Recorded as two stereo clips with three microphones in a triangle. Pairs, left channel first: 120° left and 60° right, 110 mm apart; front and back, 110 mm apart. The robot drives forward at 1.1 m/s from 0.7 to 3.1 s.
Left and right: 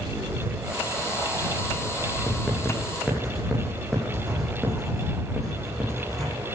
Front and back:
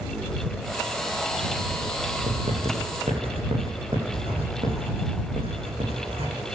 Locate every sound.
2.3 s writing: 150° right, 8.5 m